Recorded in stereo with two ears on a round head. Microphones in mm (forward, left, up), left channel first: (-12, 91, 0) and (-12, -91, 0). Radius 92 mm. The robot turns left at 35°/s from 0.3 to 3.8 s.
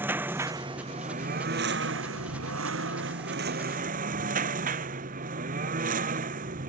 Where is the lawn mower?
10° right; by 6.7 s 135° right.